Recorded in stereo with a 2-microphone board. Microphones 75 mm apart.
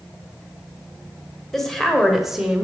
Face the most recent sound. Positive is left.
turn(degrees=-10)  # may be behind; listen again after turning